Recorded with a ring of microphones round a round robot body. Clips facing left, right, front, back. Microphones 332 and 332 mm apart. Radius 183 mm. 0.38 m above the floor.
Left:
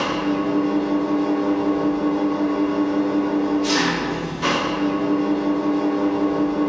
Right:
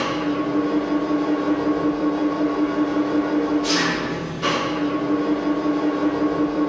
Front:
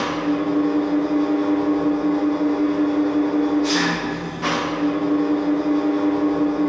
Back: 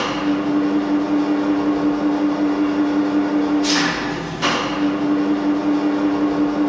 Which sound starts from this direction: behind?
An engine running, at 0.0 s.